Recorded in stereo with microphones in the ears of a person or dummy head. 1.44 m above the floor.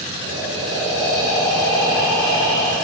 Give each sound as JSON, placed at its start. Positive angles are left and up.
{"t": 0.2, "sound": "breathing", "side_deg": 5, "distance_m": 5.0}